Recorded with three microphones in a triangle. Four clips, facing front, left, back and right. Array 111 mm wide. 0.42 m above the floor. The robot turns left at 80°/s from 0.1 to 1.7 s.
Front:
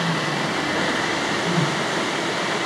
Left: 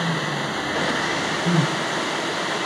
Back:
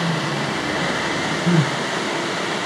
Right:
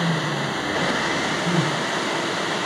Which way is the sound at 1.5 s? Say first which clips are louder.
Left 3 dB, back 6 dB; 150° left.